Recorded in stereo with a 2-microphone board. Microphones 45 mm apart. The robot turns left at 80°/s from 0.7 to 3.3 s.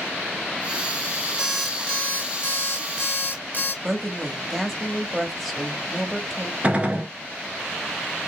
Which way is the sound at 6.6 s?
30° right (ahead or behind).